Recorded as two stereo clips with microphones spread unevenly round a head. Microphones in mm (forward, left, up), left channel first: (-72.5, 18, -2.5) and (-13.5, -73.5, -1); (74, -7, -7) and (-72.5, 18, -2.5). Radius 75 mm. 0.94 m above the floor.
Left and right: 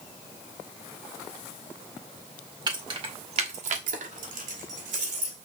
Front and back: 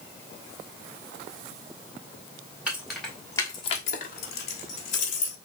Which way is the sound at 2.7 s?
105° right.